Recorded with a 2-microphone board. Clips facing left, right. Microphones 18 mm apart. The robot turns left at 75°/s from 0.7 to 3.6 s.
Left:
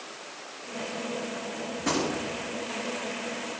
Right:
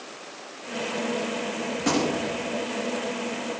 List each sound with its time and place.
1.8 s a gunshot: 25° right, 1.2 m; by 2.4 s 75° right, 1.2 m